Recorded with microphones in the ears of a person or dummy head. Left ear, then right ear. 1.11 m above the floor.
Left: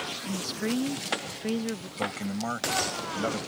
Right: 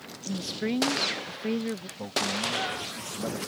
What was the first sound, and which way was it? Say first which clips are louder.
A woman speaking: right 4 dB; centre (ahead or behind).